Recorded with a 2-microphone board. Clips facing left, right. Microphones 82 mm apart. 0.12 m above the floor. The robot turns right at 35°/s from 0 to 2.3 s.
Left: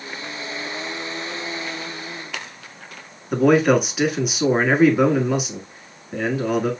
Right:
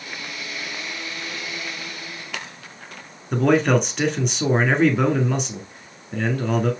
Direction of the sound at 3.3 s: 5° left (ahead or behind).